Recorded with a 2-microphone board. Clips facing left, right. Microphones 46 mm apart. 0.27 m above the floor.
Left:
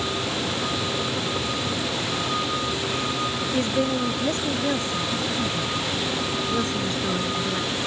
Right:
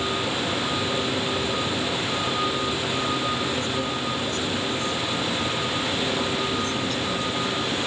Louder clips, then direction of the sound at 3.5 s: Left 3 dB; 40° left (ahead or behind).